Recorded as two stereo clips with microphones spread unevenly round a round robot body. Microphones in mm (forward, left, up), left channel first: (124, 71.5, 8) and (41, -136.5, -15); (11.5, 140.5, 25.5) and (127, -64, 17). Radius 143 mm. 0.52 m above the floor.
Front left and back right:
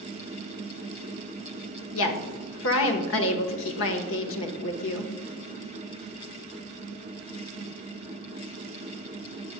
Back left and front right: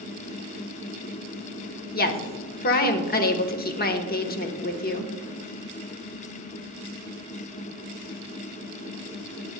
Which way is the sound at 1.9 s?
80° left.